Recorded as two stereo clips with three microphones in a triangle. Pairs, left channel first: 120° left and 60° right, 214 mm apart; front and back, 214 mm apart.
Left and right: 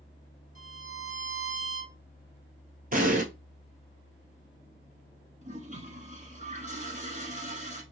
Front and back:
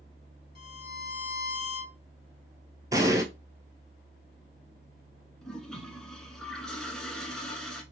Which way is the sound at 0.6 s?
30° right.